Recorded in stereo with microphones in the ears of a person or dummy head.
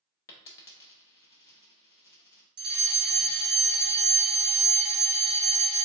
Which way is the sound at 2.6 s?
25° right (ahead or behind).